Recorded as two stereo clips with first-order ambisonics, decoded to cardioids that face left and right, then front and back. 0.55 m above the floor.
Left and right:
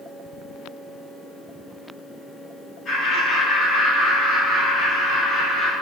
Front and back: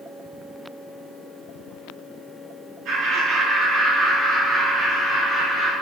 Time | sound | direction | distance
2.9 | laughter | 150° left | 1.1 m